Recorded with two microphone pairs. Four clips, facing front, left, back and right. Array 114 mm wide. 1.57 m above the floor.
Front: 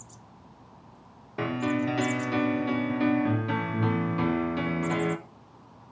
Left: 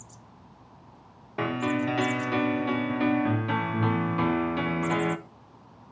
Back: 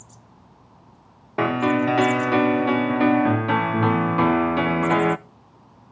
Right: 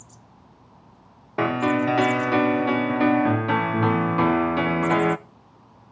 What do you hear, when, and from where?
1.4 s a piano: 135° right, 0.5 m